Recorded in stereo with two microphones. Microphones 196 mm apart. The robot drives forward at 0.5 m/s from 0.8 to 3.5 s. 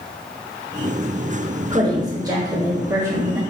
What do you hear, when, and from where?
1.7 s a woman speaking: 20° right (ahead or behind), 1.3 m; by 3.4 s 15° right (ahead or behind), 1.9 m